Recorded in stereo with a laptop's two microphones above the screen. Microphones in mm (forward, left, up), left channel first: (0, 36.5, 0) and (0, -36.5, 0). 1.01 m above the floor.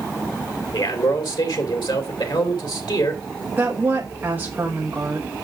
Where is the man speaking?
85° left, 2.5 m.